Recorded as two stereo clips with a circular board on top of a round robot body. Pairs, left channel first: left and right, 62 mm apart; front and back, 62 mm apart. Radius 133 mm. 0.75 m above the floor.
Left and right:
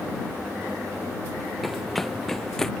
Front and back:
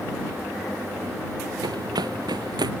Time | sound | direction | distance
1.6 | running footsteps | straight behind | ?